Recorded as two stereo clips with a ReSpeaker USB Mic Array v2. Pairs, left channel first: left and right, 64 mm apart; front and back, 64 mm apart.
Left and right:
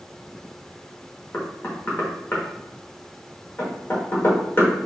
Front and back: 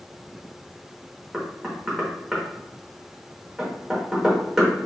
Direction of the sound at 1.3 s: 105° left.